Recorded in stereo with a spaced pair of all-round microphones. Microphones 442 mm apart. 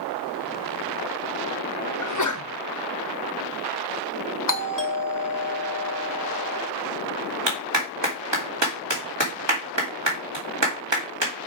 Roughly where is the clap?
Right.